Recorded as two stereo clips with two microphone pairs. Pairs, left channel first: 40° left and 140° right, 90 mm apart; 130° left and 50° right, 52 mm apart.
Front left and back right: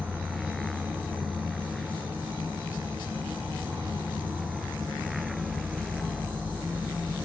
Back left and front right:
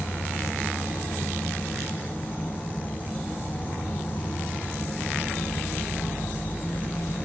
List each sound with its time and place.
0.0 s an insect: 165° left, 1.5 m